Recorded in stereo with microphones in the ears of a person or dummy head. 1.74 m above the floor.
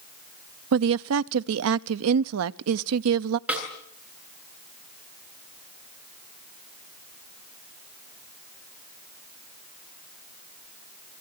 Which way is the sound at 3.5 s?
10° right (ahead or behind).